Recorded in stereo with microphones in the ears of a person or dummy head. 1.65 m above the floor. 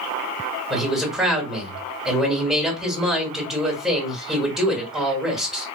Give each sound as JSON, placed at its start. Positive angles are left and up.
{"t": 0.7, "sound": "a man speaking", "side_deg": 0, "distance_m": 1.4}